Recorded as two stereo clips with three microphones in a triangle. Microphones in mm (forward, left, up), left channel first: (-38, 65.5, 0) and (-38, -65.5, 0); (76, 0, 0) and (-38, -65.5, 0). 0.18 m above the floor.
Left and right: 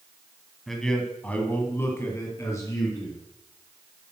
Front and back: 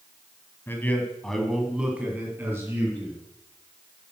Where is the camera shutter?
No camera shutter in this recording.